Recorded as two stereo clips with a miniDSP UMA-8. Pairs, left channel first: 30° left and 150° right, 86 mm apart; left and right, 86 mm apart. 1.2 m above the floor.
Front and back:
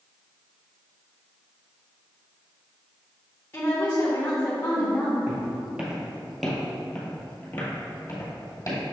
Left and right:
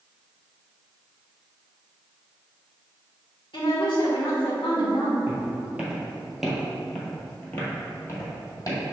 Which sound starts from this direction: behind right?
Footsteps, at 5.3 s.